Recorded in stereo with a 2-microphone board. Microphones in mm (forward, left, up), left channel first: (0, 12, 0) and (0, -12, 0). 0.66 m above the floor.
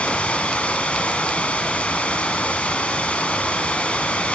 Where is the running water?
60° left (ahead or behind), 2.5 m.